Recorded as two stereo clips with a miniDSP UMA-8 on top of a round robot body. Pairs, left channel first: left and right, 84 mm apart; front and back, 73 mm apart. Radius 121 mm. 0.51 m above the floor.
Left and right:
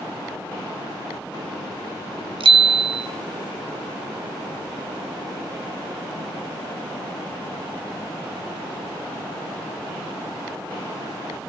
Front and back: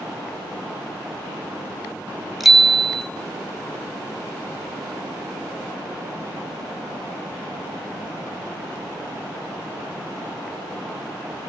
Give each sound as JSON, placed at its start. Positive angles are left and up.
{"t": 2.4, "sound": "a bicycle bell", "azimuth_deg": -90, "distance_m": 2.5}